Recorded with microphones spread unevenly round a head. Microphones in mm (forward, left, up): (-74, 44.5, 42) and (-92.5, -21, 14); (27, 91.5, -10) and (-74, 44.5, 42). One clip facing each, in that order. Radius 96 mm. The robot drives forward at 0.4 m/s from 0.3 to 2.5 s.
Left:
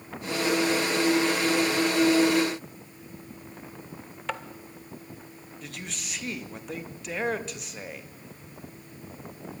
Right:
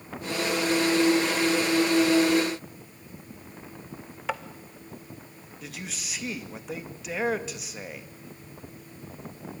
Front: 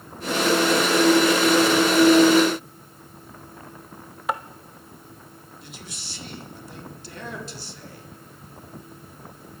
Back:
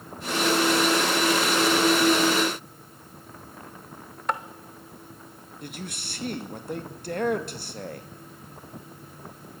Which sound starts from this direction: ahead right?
Tapping, at 4.3 s.